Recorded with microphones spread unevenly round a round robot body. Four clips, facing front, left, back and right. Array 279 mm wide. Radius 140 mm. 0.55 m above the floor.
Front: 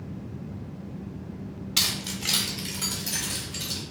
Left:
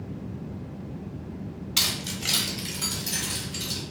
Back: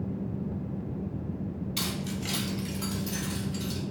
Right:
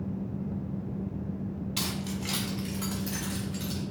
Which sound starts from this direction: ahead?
Keys jangling, at 1.8 s.